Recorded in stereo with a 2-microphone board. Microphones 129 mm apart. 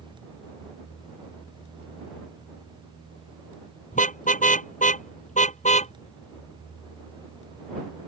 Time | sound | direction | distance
3.9 | a car horn | 75° left (ahead or behind) | ?